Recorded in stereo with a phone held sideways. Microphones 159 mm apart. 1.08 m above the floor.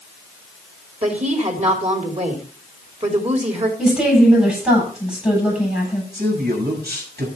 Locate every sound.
1.0 s a woman speaking: 45° right (ahead or behind), 3 m
3.8 s a woman speaking: 5° right (ahead or behind), 7.5 m
6.1 s a man speaking: 90° right, 5.5 m